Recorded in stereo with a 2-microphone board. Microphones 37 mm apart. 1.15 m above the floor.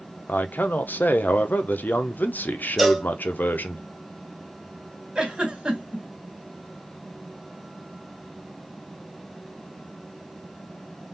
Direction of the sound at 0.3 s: 55° left (ahead or behind).